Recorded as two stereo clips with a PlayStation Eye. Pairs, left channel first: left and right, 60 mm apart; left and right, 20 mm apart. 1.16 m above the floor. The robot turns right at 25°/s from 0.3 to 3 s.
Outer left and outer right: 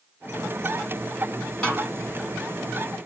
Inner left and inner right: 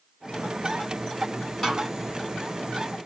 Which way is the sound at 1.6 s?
10° left (ahead or behind).